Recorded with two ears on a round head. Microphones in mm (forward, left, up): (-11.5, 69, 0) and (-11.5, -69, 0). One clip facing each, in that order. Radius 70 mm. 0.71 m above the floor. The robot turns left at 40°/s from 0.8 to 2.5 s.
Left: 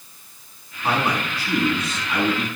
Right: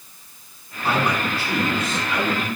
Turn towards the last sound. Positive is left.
turn(degrees=100)